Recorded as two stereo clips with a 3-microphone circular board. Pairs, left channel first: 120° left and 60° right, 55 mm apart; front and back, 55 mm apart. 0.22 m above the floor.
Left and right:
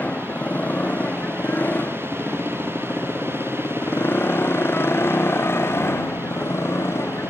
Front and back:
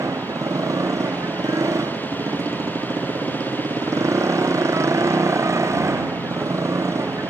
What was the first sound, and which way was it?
A motorcycle, straight behind.